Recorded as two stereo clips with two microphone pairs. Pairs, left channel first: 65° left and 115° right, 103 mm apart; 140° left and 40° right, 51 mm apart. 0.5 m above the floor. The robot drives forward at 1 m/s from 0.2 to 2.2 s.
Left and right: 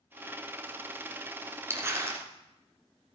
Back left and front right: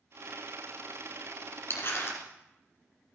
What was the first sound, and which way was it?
Crumpling, straight behind.